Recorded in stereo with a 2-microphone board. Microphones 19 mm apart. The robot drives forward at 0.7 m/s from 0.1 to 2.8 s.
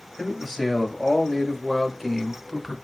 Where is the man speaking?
5° right (ahead or behind), 2 m; by 2.8 s 10° right (ahead or behind), 0.8 m.